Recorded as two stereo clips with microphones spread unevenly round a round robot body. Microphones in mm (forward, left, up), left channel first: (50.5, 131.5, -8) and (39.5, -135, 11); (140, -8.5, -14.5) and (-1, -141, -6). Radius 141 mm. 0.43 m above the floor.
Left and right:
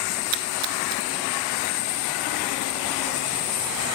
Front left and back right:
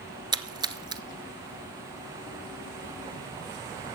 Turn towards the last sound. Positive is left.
turn(degrees=-70)